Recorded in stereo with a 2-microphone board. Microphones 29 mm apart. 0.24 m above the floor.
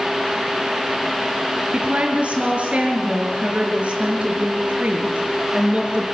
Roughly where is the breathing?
No breathing in this recording.